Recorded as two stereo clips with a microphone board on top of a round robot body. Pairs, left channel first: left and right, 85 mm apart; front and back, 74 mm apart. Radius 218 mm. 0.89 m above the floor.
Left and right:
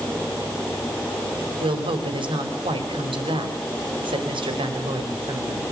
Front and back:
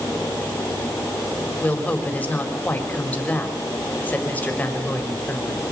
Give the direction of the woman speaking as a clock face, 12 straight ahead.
2 o'clock.